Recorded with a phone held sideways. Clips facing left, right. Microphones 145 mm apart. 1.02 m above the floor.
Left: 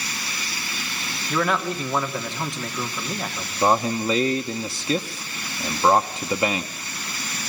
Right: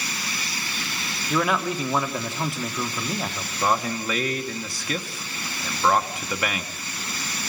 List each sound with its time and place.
1.3 s a man speaking: 5° right (ahead or behind), 1.7 m
3.6 s a man speaking: 25° left (ahead or behind), 0.8 m